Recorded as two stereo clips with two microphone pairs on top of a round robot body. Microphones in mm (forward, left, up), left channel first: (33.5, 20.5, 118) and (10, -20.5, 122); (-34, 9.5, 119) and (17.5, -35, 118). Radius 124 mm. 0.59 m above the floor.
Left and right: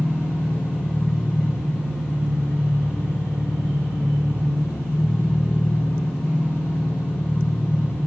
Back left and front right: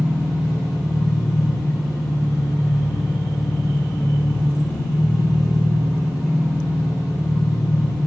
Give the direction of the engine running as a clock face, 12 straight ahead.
11 o'clock.